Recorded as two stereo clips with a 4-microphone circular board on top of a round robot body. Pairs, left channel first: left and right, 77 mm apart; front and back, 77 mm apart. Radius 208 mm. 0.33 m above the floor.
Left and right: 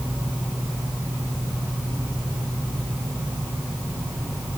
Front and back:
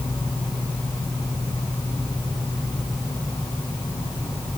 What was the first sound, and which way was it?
Only background noise.